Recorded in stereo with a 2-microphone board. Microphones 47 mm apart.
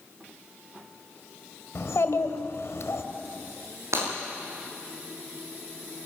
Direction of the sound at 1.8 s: 70° left (ahead or behind).